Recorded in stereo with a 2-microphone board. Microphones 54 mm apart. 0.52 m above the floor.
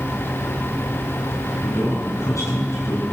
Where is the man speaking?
80° left, 5.5 m.